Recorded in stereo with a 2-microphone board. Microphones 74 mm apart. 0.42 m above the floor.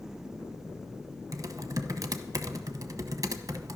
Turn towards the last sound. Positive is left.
turn(degrees=-55)  # may be behind; listen again after turning